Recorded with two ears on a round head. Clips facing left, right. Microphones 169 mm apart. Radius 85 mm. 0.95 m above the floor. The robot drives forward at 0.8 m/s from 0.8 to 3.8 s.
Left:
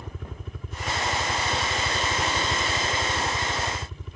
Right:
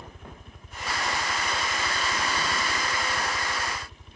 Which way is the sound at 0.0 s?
65° left (ahead or behind).